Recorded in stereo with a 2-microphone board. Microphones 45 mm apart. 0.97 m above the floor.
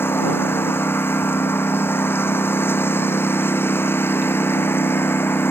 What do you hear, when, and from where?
0.0 s a lawn mower: 50° left (ahead or behind)